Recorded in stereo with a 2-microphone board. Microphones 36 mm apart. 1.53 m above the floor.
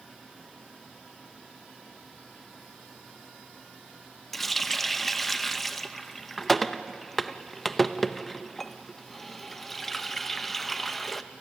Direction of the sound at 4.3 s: 5° left (ahead or behind).